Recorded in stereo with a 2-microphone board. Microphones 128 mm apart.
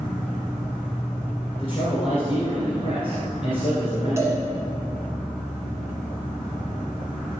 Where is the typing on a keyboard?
I don't hear typing on a keyboard.